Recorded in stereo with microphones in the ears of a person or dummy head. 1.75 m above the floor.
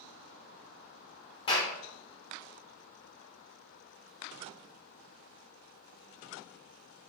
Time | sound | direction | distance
1.5 | a clap | 30° left (ahead or behind) | 1.1 m